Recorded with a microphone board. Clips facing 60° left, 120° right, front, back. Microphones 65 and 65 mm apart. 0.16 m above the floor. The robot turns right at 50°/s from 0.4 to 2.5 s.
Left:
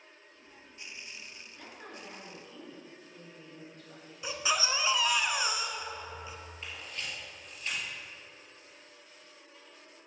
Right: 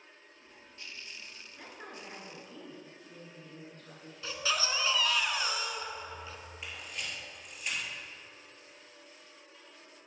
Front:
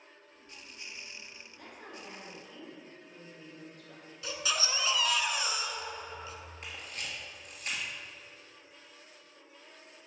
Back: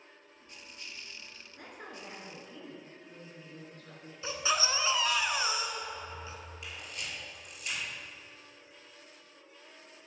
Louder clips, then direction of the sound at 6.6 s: Even, front 1 dB; 45° right.